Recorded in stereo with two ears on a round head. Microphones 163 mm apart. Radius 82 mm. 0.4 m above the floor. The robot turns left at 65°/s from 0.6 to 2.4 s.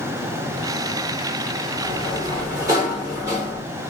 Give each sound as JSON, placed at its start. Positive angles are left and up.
{"t": 1.8, "sound": "a sliding door", "side_deg": -15, "distance_m": 1.0}